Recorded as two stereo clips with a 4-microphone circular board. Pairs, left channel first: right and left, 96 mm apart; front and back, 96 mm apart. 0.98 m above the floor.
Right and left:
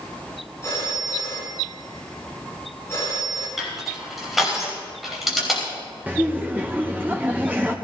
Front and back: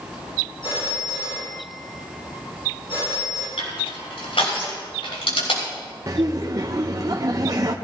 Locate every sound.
0.6 s a phone ringing: 30° right, 8 m
3.6 s crushing: 5° left, 5.5 m
6.1 s laughter: 155° left, 0.8 m